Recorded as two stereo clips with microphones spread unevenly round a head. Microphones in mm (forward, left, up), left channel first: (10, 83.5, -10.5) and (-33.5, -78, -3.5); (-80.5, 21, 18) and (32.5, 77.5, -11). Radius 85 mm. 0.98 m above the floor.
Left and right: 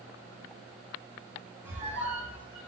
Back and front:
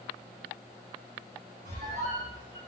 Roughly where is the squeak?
Ahead right.